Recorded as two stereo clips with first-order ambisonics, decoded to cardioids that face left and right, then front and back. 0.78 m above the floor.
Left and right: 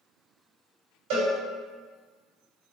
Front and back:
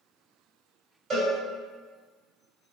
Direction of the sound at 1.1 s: 110° right.